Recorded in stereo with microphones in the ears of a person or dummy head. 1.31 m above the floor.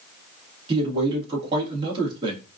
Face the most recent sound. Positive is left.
turn(degrees=-30)  # may be behind; listen again after turning